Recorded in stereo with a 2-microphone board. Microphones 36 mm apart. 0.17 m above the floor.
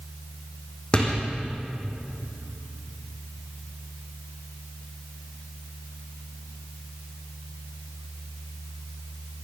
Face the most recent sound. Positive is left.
turn(degrees=25)  # may be behind; listen again after turning